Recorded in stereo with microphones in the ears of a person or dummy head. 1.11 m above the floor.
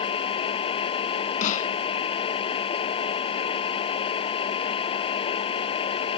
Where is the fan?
30° left (ahead or behind).